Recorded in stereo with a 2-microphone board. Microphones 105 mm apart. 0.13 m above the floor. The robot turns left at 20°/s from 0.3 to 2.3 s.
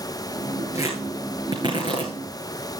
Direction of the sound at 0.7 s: 30° right (ahead or behind).